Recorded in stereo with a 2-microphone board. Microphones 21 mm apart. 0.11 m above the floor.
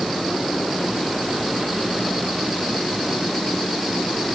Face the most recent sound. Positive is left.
No sound to turn to.